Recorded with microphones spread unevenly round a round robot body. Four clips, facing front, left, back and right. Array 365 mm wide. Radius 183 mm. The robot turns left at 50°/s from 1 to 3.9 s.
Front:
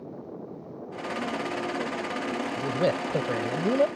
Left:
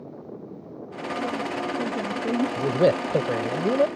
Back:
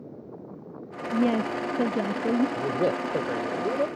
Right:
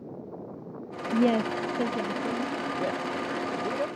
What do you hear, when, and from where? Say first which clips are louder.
1.1 s a woman speaking: right 5 dB, back 7 dB; 150° right; by 2.5 s 145° left
2.6 s a man speaking: left 9 dB, back 1 dB; 85° left; by 3.9 s 20° left